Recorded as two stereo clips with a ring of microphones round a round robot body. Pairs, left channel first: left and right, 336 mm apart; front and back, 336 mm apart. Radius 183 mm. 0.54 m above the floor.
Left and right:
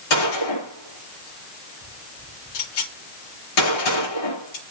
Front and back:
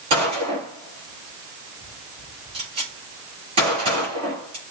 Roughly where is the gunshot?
Left.